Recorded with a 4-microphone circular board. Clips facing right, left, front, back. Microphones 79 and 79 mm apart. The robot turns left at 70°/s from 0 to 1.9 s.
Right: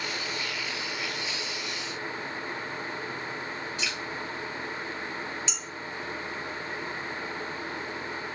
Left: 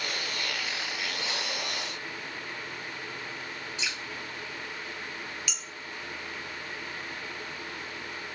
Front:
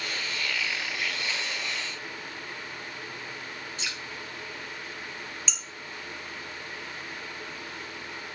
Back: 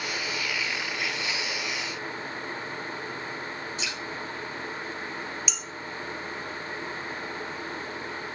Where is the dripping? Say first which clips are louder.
Even, back 3 dB; 30° left, 1.9 m.